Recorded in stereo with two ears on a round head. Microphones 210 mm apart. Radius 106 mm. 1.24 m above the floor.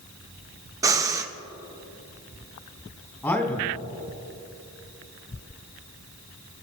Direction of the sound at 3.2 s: 15° left (ahead or behind).